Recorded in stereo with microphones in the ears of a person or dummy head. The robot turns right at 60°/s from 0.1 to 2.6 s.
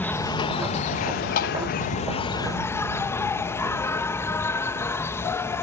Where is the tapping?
50° left (ahead or behind); by 1.6 s 60° left (ahead or behind).